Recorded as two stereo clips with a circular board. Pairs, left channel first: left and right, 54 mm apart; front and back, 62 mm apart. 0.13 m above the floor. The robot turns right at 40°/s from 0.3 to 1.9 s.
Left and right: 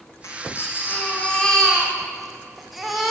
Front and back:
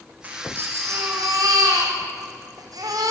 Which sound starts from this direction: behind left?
A baby crying, at 0.2 s.